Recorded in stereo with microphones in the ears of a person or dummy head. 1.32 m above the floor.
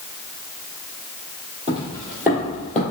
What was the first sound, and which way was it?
Footsteps, 20° right (ahead or behind).